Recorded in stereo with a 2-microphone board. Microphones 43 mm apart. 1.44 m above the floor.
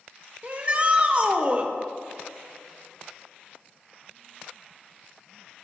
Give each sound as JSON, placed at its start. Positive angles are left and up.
{"t": 0.4, "sound": "a shout", "side_deg": -30, "distance_m": 0.7}